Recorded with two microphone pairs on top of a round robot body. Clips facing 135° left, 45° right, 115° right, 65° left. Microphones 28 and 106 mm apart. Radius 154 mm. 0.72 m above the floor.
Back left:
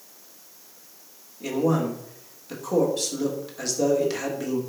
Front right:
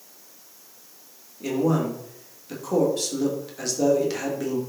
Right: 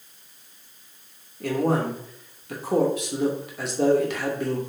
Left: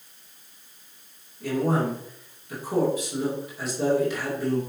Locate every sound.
1.4 s a man speaking: 140° right, 3 m